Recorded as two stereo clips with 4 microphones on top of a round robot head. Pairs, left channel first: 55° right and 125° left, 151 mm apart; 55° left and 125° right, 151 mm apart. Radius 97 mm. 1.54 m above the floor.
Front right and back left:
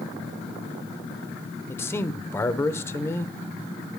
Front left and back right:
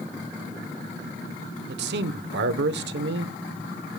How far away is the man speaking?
About 0.9 m.